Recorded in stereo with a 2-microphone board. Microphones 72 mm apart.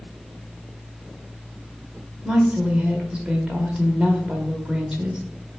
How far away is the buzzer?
No buzzer in this recording.